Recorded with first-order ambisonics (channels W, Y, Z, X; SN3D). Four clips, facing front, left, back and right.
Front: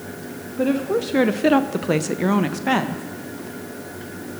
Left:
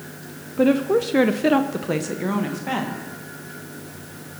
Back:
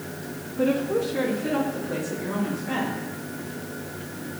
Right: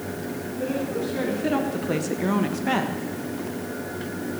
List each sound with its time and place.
0.6 s a woman speaking: 80° left, 0.8 m; by 3.0 s 15° right, 1.4 m